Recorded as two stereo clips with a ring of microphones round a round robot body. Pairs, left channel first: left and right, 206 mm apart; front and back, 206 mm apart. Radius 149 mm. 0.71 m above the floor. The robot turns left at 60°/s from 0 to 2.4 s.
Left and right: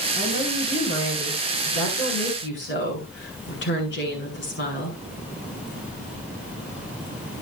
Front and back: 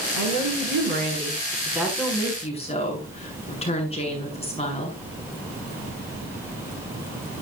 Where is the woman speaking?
165° right, 8 m; by 5.0 s 60° left, 8 m.